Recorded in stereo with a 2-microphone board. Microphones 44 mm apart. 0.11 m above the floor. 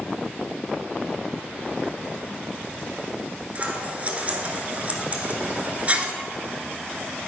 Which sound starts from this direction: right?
Scissors, at 3.5 s.